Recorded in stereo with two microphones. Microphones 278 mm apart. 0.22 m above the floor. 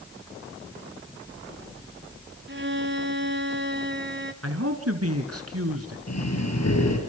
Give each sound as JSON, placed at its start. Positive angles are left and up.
{"t": 2.5, "sound": "a violin", "side_deg": -45, "distance_m": 1.0}
{"t": 4.4, "sound": "a man speaking", "side_deg": -60, "distance_m": 2.5}
{"t": 6.1, "sound": "breathing", "side_deg": 70, "distance_m": 4.5}